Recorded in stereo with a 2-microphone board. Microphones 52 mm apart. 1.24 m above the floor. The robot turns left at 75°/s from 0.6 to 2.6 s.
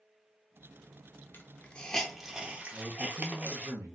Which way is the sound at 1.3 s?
45° left (ahead or behind).